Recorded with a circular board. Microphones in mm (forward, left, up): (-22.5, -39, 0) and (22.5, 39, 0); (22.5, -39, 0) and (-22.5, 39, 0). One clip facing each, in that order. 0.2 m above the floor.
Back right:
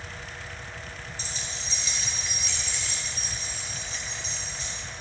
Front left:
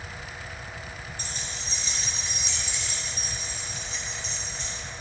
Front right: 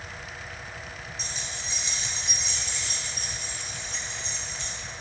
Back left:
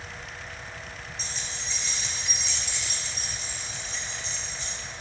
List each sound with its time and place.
1.2 s keys jangling: 30° left, 2.0 m; by 4.7 s 35° right, 4 m